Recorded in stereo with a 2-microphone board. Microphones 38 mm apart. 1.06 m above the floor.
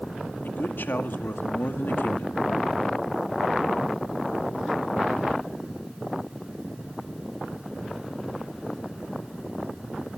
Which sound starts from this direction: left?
A man speaking, at 0.4 s.